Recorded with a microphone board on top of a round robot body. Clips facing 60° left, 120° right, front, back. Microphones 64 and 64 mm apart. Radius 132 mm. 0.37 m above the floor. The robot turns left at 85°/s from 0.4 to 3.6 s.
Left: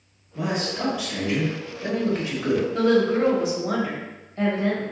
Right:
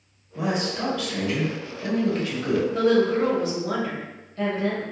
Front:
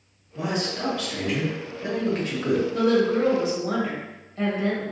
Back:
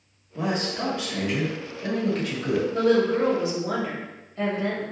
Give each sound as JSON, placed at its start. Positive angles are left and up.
{"t": 0.3, "sound": "a man speaking", "azimuth_deg": 175, "distance_m": 1.3}
{"t": 2.7, "sound": "a woman speaking", "azimuth_deg": -175, "distance_m": 1.6}